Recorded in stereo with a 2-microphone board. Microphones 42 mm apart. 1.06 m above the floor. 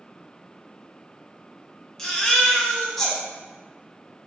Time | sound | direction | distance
2.0 | a baby crying | 10° left (ahead or behind) | 0.8 m